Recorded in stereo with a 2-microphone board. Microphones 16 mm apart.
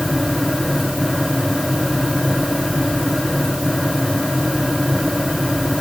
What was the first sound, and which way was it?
Only background noise.